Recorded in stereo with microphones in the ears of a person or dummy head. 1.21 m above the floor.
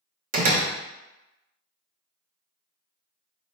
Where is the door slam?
40° right (ahead or behind), 0.7 m.